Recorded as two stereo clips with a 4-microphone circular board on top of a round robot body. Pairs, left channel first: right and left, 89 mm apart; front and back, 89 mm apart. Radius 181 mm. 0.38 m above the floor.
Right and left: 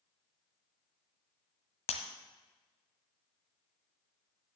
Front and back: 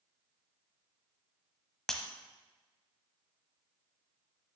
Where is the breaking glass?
85° right, 1.1 m.